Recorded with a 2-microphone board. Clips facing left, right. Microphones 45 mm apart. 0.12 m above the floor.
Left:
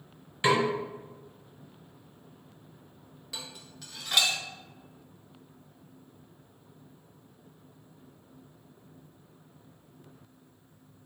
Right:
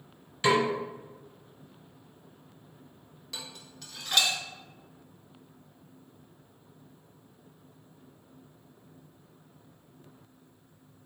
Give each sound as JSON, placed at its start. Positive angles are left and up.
{"t": 0.4, "sound": "a snare drum", "side_deg": 15, "distance_m": 1.4}
{"t": 3.3, "sound": "dishes clattering", "side_deg": 10, "distance_m": 1.0}